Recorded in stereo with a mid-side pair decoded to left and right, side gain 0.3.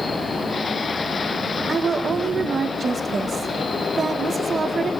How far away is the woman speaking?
About 1.7 m.